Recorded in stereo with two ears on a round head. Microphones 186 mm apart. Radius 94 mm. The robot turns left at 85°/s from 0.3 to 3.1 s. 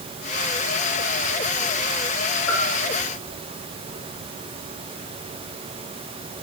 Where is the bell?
80° left, 3.5 m; by 2.7 s 60° left (ahead or behind), 3.5 m.